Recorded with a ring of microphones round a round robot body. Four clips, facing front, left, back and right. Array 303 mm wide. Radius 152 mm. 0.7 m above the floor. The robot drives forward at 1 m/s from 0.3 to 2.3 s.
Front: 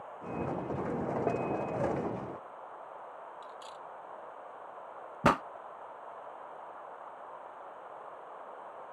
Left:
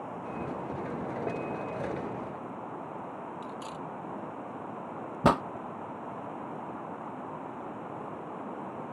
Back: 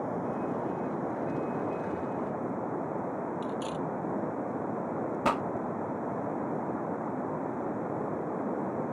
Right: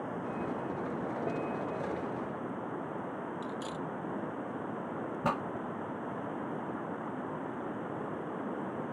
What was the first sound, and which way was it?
Running water, 165° right.